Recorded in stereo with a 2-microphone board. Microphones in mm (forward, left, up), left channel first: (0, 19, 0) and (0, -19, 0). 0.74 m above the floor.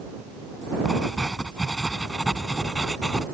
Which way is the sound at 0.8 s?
10° left (ahead or behind).